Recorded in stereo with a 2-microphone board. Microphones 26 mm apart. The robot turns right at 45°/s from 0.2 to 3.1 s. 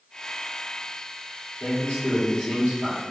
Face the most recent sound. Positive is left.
turn(degrees=125)